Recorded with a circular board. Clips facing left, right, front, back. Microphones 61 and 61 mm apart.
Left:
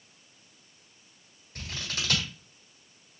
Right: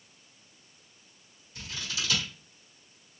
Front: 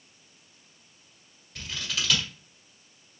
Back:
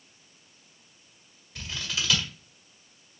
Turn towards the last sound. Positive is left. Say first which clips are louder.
# left 1 dB, even
turn(degrees=95)